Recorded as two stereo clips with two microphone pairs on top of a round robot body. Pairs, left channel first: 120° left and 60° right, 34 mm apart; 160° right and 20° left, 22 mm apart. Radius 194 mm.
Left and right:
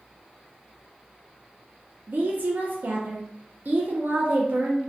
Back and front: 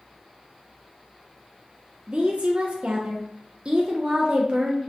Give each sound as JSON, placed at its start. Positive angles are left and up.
{"t": 2.1, "sound": "a woman speaking", "azimuth_deg": -25, "distance_m": 0.5}